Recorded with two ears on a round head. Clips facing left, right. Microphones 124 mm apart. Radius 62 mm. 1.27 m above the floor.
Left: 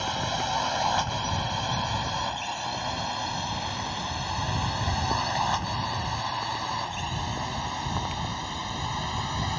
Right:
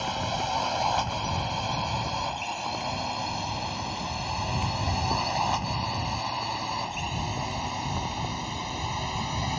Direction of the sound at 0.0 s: 5° right (ahead or behind).